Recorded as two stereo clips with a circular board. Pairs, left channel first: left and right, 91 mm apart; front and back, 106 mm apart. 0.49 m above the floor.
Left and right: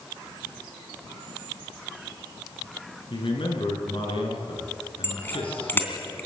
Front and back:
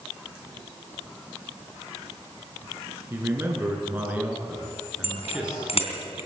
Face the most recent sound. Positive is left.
turn(degrees=25)